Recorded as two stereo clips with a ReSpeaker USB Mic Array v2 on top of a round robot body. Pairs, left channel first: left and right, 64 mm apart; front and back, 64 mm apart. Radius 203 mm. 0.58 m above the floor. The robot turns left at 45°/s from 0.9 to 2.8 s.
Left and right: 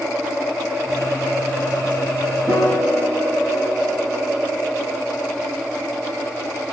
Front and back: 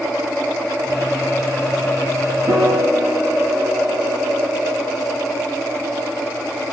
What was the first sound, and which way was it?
A piano, 155° right.